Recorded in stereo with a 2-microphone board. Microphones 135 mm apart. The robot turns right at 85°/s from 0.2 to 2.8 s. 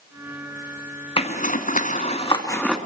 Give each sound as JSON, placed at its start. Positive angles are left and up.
{"t": 1.2, "sound": "a zipper", "side_deg": 40, "distance_m": 2.5}